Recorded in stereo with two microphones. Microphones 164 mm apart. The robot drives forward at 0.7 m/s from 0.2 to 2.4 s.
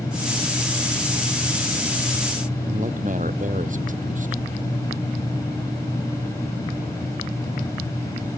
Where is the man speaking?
50° right (ahead or behind).